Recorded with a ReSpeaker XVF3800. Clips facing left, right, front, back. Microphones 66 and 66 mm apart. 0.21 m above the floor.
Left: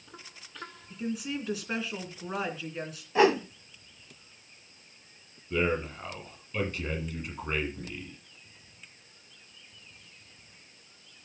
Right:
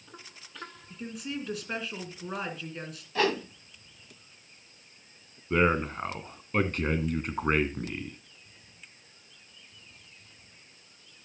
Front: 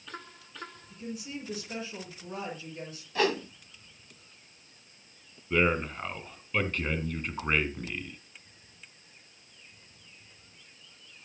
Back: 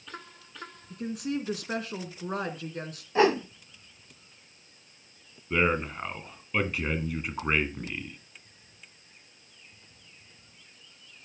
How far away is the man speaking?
About 1.9 m.